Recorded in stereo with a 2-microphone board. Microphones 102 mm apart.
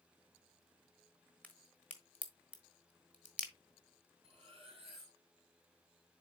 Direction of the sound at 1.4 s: 15° left (ahead or behind).